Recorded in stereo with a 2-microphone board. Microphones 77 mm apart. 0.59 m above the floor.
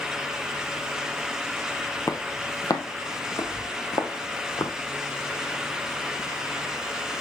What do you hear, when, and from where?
2.1 s footsteps: 45° left (ahead or behind), 1.2 m; by 4.7 s 75° left (ahead or behind), 2 m